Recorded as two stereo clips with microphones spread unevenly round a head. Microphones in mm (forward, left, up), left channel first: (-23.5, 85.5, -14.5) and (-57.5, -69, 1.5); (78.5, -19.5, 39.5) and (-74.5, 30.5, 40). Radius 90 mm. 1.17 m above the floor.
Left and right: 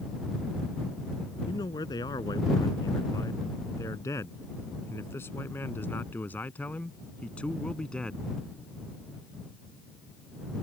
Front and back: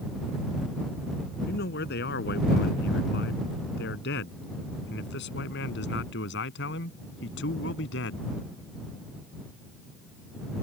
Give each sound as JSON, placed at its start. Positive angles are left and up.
{"t": 1.5, "sound": "a man speaking", "azimuth_deg": 5}